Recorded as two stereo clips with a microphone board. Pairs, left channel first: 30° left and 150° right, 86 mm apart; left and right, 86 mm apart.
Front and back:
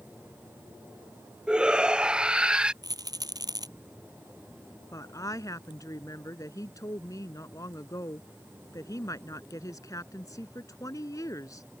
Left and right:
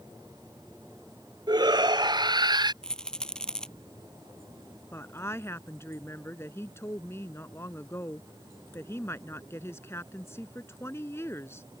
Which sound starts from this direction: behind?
A rattle, at 2.8 s.